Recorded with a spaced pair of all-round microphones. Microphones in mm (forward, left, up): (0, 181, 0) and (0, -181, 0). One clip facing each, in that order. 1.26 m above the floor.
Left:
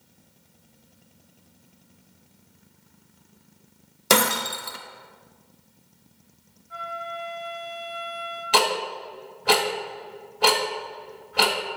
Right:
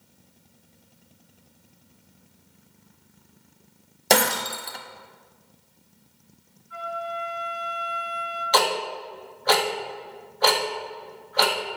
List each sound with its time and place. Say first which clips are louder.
4.1 s breaking glass: even; 10° left (ahead or behind), 0.7 m
6.7 s a flute: right 3 dB; 85° left, 3.5 m
8.5 s ticking: even; 40° left (ahead or behind), 1.2 m